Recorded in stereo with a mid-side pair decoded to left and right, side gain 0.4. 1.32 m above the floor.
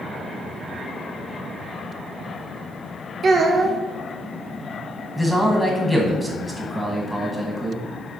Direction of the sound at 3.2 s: 50° right.